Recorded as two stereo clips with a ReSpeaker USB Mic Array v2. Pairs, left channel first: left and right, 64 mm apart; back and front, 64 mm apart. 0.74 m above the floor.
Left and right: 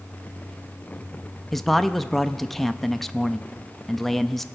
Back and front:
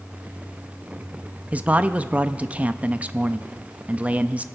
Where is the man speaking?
10° left, 0.5 m.